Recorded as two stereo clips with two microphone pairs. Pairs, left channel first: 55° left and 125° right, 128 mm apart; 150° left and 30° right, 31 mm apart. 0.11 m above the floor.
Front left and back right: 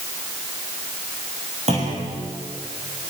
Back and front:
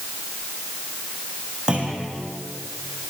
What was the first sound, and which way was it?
A clunk, 95° right.